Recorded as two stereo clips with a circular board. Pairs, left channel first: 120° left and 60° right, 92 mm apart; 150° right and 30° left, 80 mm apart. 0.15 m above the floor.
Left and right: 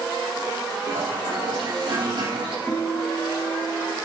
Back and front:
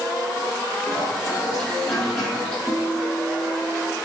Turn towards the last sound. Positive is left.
turn(degrees=35)